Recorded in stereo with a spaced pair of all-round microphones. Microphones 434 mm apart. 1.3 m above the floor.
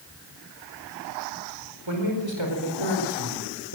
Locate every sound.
1.9 s a man speaking: 75° right (ahead or behind), 5 m